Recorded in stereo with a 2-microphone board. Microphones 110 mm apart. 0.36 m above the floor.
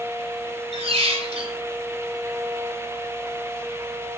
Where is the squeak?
60° right (ahead or behind), 0.6 m.